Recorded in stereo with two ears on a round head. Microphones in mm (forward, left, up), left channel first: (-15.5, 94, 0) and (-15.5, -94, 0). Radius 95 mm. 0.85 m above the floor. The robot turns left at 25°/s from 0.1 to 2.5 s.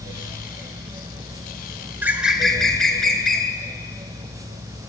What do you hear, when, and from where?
2.0 s a bird: 10° right (ahead or behind), 1.1 m; by 3.5 s centre (ahead or behind), 1.1 m